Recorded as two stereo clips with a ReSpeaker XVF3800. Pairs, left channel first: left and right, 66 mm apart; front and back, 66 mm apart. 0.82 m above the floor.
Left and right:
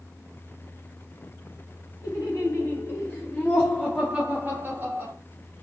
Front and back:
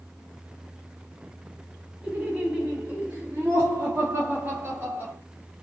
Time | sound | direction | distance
2.0 | laughter | 110° left | 2.5 m